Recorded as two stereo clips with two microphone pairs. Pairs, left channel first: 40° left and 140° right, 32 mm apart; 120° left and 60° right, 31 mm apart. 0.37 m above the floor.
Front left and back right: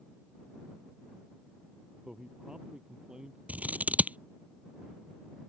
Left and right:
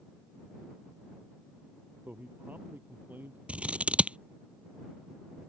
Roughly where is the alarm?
I don't hear an alarm.